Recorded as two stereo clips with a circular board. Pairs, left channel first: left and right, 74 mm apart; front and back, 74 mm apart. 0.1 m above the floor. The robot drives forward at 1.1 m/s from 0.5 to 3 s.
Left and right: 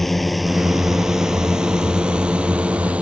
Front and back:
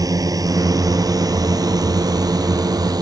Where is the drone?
175° left; by 3.0 s 165° right.